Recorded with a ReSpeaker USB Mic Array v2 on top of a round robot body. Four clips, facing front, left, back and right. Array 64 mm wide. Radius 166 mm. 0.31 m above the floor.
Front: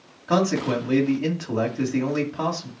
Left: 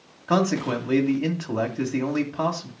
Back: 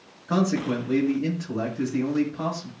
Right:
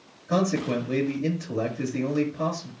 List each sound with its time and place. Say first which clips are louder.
0.3 s a man speaking: left 2 dB, front 2 dB; 65° left, 3 m